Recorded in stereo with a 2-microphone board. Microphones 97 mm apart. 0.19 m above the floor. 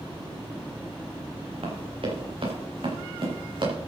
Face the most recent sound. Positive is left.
turn(degrees=-55)  # may be behind; listen again after turning